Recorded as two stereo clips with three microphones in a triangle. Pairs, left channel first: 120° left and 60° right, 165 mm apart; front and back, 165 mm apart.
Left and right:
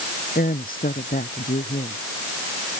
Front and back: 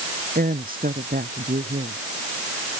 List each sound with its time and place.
0.3 s a woman speaking: 150° left